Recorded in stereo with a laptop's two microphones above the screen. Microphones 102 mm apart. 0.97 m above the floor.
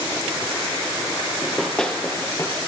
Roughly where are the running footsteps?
Centre.